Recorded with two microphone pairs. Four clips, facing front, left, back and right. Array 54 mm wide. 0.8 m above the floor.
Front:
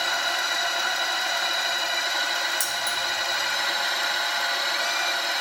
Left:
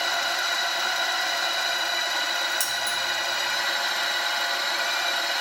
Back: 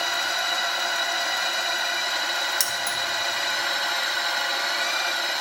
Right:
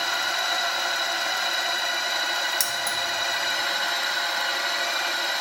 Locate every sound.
2.6 s keys jangling: 145° right, 1.2 m